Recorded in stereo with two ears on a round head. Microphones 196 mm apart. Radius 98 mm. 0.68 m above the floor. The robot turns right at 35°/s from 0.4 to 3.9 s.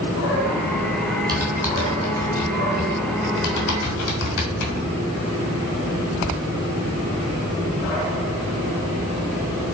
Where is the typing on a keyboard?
20° right (ahead or behind), 2.5 m; by 4.9 s 75° left (ahead or behind), 2.5 m.